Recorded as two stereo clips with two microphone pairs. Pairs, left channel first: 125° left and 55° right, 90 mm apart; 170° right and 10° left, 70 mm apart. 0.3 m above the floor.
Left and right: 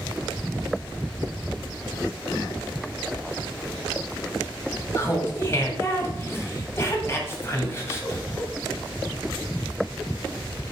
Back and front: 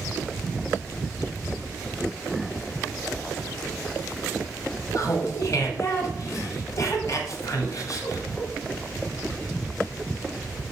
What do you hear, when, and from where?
5.0 s laughter: 175° left, 2 m